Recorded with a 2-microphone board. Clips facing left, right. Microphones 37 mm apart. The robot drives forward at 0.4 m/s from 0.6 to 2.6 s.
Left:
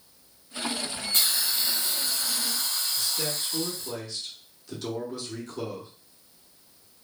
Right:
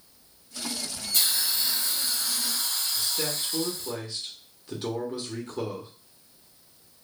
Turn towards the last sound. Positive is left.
turn(degrees=-25)  # may be behind; listen again after turning